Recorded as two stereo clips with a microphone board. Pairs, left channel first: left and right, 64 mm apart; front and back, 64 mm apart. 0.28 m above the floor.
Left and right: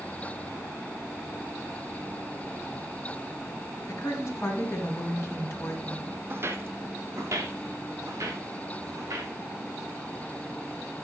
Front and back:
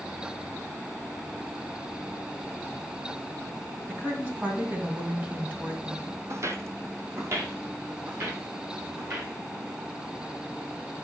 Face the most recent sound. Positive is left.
turn(degrees=-130)